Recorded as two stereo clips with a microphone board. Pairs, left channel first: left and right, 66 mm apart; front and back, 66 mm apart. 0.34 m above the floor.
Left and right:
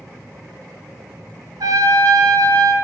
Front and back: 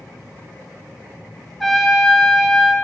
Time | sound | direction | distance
1.6 | a trumpet | 85° right | 0.6 m